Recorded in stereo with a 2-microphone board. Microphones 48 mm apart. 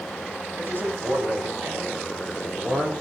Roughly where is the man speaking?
Right.